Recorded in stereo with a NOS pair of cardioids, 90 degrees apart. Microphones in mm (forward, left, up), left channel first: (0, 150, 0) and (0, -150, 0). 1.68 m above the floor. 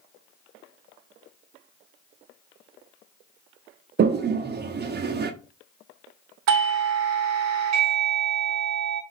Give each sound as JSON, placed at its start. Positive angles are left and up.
{"t": 4.0, "sound": "a toilet flushing", "azimuth_deg": -35, "distance_m": 0.5}
{"t": 6.5, "sound": "a doorbell", "azimuth_deg": -65, "distance_m": 0.7}